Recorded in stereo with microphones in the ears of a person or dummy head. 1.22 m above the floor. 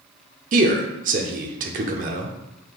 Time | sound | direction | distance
0.5 | a man speaking | 40° right (ahead or behind) | 0.6 m